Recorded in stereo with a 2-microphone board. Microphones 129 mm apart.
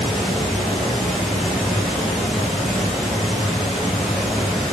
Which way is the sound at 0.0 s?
Centre (ahead or behind).